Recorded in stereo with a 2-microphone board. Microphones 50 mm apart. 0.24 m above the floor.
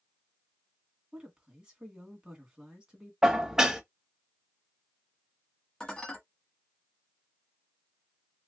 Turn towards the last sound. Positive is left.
turn(degrees=10)  # may be behind; listen again after turning